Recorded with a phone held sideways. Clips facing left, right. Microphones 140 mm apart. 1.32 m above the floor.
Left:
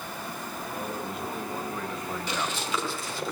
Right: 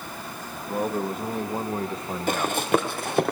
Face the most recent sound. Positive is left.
turn(degrees=-60)  # may be behind; listen again after turning